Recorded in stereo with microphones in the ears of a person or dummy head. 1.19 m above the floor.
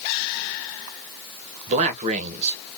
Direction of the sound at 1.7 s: 40° right (ahead or behind).